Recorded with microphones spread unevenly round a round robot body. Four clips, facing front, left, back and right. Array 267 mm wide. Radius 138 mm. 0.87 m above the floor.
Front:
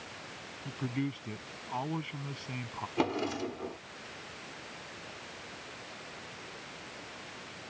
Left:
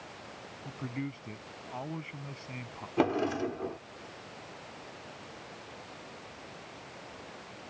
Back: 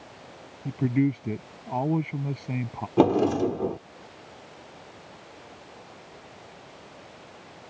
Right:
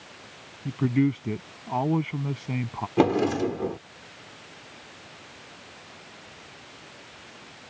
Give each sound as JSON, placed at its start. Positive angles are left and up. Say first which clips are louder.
{"t": 0.7, "sound": "a man speaking", "louder": "right 15 dB, back 11 dB", "azimuth_deg": -130}
{"t": 3.0, "sound": "a drawer", "louder": "right 7 dB, back 12 dB", "azimuth_deg": -145}